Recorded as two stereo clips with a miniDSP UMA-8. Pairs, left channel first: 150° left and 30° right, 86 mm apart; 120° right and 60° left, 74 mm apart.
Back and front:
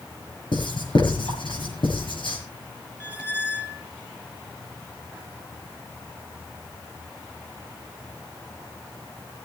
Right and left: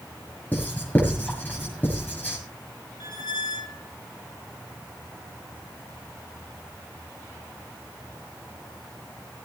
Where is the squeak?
100° right, 1.7 m.